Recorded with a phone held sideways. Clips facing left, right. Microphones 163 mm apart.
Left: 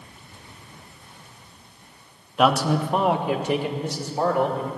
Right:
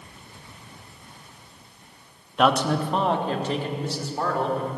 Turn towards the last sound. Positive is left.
turn(degrees=20)  # may be behind; listen again after turning